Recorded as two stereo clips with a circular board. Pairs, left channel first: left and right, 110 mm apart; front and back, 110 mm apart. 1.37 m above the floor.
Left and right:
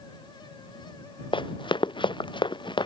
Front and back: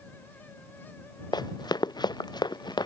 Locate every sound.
1.3 s running footsteps: 50° left; by 2.9 s 45° left